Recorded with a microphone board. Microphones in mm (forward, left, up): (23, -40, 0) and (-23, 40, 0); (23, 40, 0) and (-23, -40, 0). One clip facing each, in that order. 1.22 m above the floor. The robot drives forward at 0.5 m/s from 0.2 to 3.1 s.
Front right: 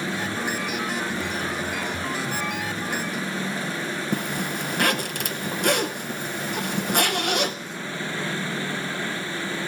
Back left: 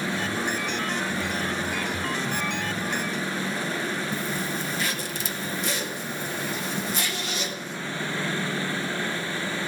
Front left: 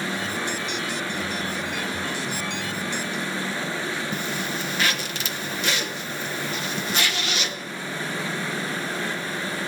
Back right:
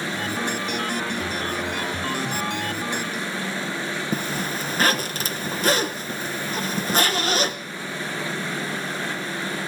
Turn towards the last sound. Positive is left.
turn(degrees=-75)